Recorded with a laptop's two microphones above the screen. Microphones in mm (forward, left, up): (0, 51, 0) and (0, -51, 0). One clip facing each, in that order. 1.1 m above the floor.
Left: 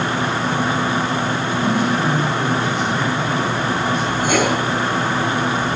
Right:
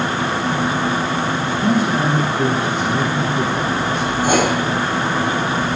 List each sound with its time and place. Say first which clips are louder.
1.6 s a man speaking: right 2 dB; 40° right (ahead or behind), 3.5 m
4.2 s writing: right 2 dB; 30° right (ahead or behind), 4.5 m